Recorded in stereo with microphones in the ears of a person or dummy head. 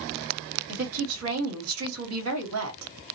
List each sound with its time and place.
0.7 s a woman speaking: 85° right, 1.6 m